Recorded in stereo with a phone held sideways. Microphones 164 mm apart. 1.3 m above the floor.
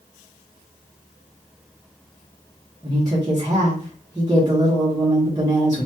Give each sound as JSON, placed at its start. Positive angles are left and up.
{"t": 2.8, "sound": "a woman speaking", "side_deg": -25, "distance_m": 1.4}